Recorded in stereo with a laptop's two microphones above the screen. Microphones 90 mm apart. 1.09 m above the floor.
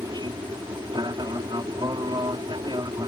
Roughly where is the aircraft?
Right.